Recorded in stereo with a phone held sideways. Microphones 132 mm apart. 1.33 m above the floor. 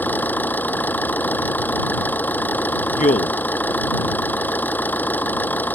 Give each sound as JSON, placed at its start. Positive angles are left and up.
{"t": 0.0, "sound": "an engine running", "side_deg": 15}
{"t": 2.9, "sound": "a man speaking", "side_deg": 75}